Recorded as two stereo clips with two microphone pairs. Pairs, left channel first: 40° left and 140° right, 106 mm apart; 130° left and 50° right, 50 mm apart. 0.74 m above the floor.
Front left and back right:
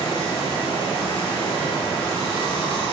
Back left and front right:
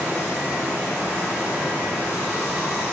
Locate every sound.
0.0 s running water: 10° left, 1.3 m